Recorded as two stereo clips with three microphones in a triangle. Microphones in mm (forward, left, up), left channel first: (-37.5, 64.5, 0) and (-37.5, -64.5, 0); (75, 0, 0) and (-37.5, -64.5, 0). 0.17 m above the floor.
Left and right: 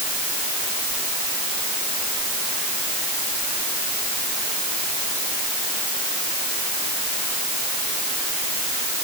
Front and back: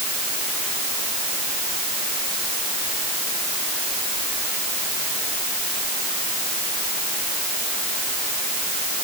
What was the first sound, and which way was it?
Only background noise.